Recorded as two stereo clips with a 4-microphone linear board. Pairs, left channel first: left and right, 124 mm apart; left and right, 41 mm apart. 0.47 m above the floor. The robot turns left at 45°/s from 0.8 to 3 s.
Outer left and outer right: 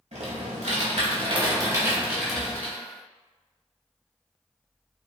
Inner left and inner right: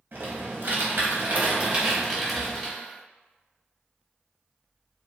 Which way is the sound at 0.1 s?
110° right.